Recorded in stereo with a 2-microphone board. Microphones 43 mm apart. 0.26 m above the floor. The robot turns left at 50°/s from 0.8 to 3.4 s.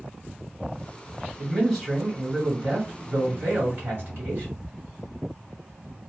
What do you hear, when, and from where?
1.4 s a man speaking: 25° left, 2 m; by 4.6 s 75° right, 2 m